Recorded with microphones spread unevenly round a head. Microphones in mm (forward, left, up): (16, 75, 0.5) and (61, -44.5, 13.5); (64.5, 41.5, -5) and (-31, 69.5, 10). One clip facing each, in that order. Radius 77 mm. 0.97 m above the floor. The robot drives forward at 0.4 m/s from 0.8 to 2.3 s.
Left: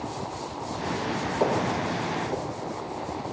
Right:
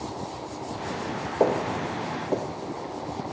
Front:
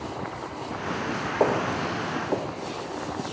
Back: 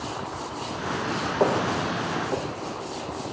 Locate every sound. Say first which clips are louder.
1.4 s footsteps: right 2 dB, even; 95° right, 3 m; by 3.2 s 45° right, 2 m